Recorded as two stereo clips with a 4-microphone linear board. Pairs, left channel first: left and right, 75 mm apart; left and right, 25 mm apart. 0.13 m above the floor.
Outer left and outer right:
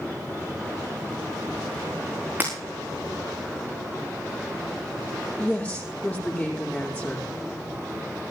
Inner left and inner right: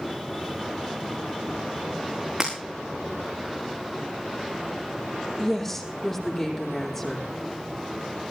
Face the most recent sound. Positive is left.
turn(degrees=20)  # may be behind; listen again after turning